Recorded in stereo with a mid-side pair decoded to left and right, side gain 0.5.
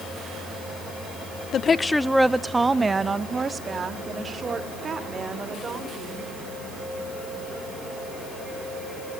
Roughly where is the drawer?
No drawer in this recording.